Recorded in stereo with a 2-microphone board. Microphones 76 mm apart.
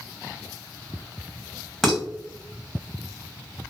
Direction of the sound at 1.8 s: 5° left (ahead or behind).